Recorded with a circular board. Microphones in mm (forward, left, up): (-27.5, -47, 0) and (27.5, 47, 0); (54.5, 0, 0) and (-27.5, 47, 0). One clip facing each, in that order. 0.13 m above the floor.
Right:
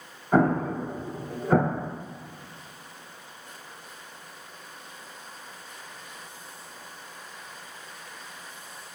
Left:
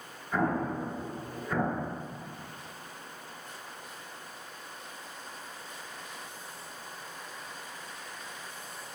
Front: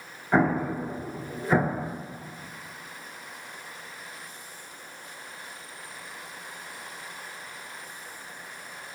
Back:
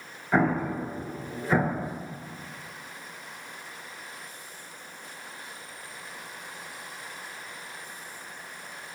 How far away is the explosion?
About 0.7 m.